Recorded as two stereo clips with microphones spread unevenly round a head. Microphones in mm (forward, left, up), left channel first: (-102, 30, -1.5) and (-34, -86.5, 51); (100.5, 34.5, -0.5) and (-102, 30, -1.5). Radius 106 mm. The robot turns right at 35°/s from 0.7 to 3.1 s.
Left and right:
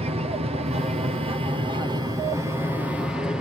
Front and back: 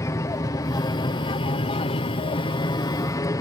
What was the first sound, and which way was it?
An aircraft, 45° right.